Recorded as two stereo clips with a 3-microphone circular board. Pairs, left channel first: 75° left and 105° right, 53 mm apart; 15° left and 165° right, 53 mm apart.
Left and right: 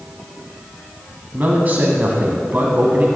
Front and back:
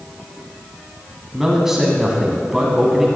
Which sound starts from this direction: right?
A man speaking, at 1.3 s.